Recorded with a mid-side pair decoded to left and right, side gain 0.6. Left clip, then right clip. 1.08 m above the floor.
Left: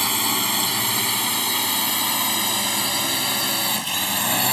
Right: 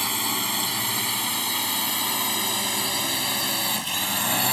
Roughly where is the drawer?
I don't hear a drawer.